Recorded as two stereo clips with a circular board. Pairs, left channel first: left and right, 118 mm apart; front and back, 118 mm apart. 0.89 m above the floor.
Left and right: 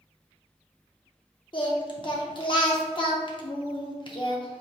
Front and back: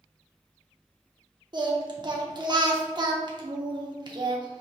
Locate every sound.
1.5 s singing: 135° left, 0.6 m